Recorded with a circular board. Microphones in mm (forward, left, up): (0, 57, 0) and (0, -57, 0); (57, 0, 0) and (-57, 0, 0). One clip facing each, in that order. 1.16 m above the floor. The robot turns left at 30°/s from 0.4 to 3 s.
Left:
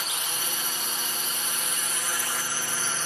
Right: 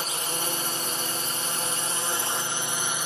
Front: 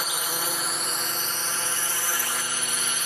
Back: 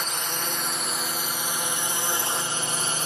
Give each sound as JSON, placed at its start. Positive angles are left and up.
{"t": 0.0, "sound": "a drone", "azimuth_deg": -80}